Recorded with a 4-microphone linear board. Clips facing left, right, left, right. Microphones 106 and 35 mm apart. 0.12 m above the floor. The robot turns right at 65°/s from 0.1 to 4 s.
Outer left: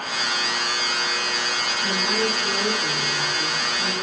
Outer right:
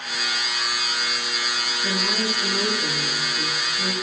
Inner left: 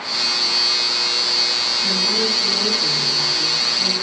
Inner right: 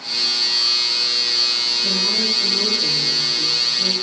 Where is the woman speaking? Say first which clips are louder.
Outer left 2 dB, inner left 2 dB; 165° left, 6.5 m; by 3.9 s 60° right, 6.5 m.